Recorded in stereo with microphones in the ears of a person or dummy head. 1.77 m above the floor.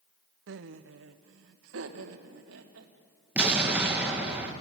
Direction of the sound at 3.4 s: 5° right (ahead or behind).